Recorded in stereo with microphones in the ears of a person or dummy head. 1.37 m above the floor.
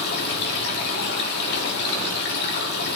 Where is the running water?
55° left (ahead or behind), 3 m.